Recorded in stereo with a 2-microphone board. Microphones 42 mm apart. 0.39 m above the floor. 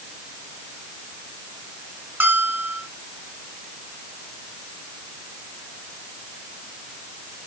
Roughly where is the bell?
Right.